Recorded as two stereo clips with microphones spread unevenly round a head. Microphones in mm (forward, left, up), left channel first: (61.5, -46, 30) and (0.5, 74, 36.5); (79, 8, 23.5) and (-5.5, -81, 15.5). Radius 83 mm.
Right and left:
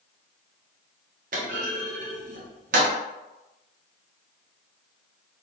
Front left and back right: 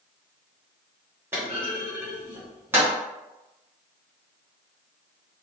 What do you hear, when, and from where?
1.3 s a clunk: 150° left, 0.7 m